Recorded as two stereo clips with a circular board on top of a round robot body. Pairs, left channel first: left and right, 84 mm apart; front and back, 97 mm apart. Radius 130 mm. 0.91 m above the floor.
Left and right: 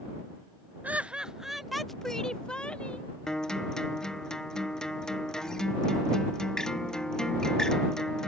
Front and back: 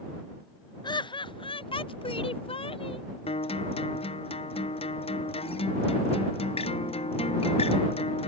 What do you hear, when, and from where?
0.8 s laughter: 20° right; by 3.1 s 15° left
3.3 s a guitar: 5° left